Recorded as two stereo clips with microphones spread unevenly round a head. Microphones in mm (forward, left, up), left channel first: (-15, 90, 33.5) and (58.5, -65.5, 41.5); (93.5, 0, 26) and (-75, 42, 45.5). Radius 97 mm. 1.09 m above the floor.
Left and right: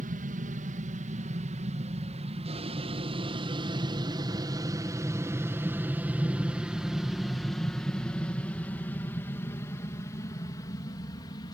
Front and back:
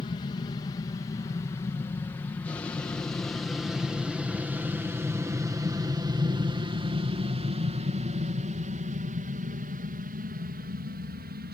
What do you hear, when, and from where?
0.0 s an aircraft: 60° right; by 11.5 s 175° left